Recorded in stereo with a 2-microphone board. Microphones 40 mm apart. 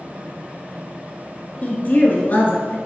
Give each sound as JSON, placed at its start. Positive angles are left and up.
{"t": 1.6, "sound": "a woman speaking", "side_deg": 45, "distance_m": 1.8}